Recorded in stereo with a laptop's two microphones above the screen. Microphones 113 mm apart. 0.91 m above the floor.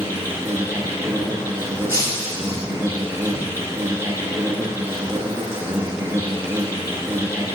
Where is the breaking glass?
20° right (ahead or behind), 1.0 m.